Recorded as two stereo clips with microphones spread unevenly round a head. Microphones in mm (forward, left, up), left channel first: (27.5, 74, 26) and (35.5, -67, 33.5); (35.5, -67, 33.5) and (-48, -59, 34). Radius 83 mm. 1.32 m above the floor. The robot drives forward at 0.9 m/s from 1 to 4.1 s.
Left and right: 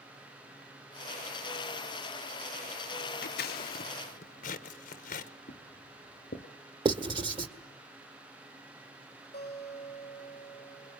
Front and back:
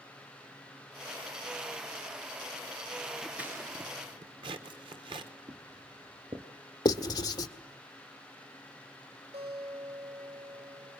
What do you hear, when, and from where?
3.2 s scissors: 85° left, 0.8 m; by 5.3 s 130° left, 1.1 m
5.5 s footsteps: 130° left, 2.5 m
6.8 s writing: 40° right, 1.5 m
9.3 s a guitar: 155° left, 6 m